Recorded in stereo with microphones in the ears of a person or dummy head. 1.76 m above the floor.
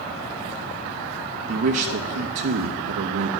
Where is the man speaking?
60° right (ahead or behind), 0.6 m.